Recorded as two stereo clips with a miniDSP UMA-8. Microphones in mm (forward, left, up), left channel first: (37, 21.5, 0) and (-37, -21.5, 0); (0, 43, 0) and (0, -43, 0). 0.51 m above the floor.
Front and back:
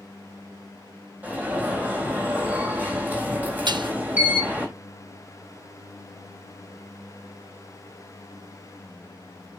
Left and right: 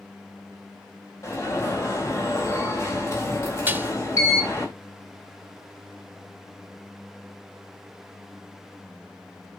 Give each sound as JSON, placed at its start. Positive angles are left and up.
{"t": 1.2, "sound": "an alarm", "azimuth_deg": 140, "distance_m": 3.5}
{"t": 3.7, "sound": "dishes clattering", "azimuth_deg": -155, "distance_m": 0.7}